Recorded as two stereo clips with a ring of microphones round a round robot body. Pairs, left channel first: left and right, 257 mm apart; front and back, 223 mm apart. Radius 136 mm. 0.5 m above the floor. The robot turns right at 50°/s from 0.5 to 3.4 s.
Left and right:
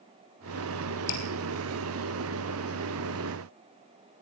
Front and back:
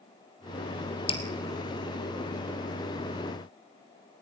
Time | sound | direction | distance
1.1 | dripping | 65° left | 3 m